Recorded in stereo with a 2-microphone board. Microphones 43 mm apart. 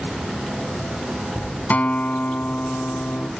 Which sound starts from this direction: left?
A guitar, at 1.7 s.